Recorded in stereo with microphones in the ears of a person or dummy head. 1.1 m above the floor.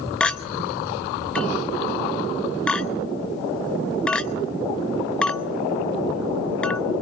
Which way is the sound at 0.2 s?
10° left (ahead or behind).